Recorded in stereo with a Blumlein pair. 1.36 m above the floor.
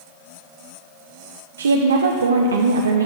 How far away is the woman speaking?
About 0.7 m.